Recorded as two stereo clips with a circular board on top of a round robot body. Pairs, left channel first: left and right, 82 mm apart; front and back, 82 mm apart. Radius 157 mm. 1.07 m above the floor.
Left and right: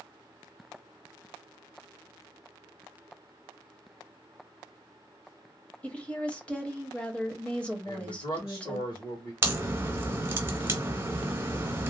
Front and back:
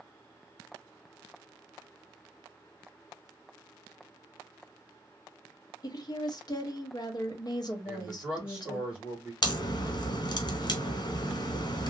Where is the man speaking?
110° left, 1.5 m.